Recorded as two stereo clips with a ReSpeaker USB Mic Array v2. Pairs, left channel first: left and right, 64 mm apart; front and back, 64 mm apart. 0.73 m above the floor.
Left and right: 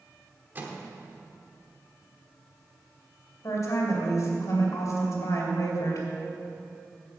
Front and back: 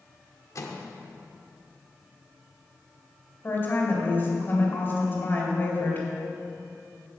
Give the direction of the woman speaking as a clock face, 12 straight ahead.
10 o'clock.